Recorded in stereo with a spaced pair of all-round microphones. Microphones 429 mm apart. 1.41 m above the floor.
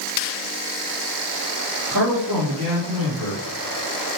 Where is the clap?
I don't hear a clap.